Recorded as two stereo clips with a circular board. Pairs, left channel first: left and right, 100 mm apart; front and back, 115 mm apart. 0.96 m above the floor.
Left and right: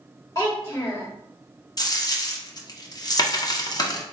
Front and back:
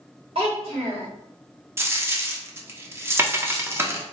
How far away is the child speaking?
About 1.6 m.